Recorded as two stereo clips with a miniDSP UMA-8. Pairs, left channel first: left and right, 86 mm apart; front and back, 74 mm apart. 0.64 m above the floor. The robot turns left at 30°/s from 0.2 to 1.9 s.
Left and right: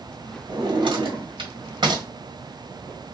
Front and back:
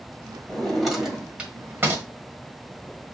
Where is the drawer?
80° right, 1.6 m; by 2.0 s 120° right, 1.6 m.